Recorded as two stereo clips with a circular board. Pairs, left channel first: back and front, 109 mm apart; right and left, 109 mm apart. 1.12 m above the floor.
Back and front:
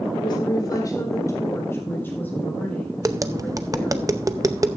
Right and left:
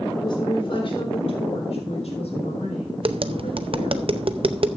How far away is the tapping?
About 0.6 m.